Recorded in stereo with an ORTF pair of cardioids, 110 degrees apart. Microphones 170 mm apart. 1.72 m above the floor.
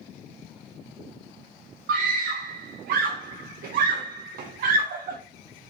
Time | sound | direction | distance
1.9 | a scream | 60° right | 0.7 m